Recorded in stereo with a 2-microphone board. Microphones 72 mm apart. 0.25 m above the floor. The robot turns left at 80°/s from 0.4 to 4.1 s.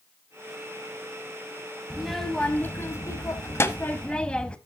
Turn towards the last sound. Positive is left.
turn(degrees=20)